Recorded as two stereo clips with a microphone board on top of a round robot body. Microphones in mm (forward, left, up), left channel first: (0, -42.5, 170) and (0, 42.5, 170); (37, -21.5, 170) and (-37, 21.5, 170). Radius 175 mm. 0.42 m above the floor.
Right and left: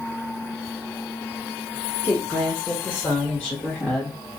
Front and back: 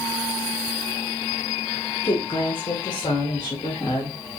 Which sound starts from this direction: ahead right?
A woman speaking, at 2.0 s.